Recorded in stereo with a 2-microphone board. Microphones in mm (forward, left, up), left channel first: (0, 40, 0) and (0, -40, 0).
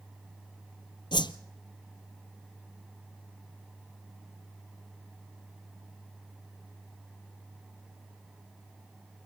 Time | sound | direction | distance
1.1 | a whoosh | 70° left (ahead or behind) | 0.9 m